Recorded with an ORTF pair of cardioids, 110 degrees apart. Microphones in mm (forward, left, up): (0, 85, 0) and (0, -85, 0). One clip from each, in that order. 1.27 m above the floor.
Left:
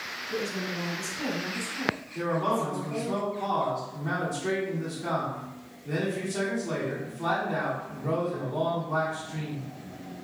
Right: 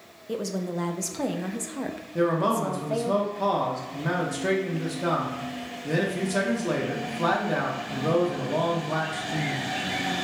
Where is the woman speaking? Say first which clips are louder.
Right 3 dB; 65° right, 0.5 m.